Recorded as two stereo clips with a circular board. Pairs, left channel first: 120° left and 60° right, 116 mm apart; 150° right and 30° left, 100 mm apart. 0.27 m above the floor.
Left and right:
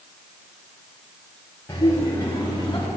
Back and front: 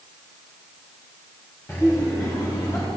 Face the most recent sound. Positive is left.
turn(degrees=170)